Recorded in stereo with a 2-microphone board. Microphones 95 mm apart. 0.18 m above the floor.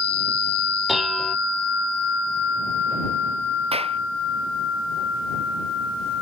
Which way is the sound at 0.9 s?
Centre (ahead or behind).